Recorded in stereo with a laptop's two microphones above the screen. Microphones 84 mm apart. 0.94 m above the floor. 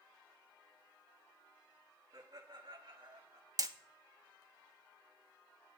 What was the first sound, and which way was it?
Laughter, 75° right (ahead or behind).